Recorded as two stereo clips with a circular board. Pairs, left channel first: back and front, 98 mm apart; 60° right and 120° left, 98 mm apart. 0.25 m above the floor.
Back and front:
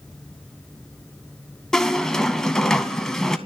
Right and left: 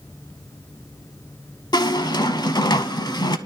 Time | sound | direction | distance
1.7 | a squeak | 95° right | 0.6 m